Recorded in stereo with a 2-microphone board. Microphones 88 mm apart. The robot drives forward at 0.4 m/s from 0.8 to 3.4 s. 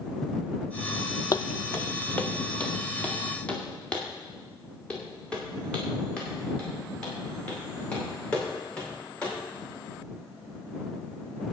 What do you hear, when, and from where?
1.3 s footsteps: 40° left (ahead or behind), 0.5 m; by 9.3 s 15° left (ahead or behind), 7.5 m